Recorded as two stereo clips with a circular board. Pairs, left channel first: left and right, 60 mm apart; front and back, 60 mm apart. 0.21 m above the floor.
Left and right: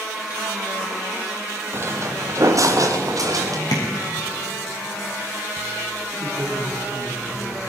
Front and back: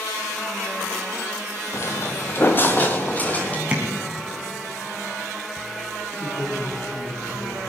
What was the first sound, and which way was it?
Footsteps, 40° right.